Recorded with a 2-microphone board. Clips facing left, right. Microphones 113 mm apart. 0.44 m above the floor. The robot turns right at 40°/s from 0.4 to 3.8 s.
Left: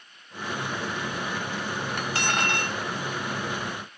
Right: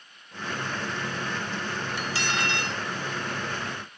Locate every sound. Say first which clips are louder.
2.0 s cutlery clinking: left 3 dB; 75° left, 0.6 m; by 2.8 s 105° left, 0.6 m